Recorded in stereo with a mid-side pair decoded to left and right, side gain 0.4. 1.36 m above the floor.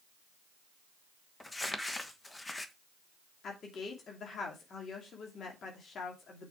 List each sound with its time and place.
1.4 s crumpling: 20° left, 1.4 m
3.4 s a woman speaking: 60° left, 2.5 m